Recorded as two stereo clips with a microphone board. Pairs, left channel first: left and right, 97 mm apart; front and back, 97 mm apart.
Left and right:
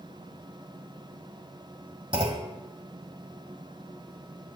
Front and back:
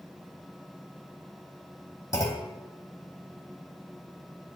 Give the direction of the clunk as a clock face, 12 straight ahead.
2 o'clock.